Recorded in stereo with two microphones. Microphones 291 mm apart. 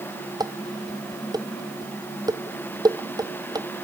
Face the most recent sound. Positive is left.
turn(degrees=-15)  # may be behind; listen again after turning